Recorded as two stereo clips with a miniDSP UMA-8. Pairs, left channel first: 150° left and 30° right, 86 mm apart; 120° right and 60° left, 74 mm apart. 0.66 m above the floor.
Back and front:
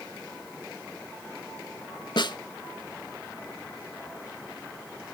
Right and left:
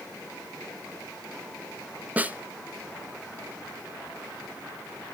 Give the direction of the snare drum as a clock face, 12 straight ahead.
8 o'clock.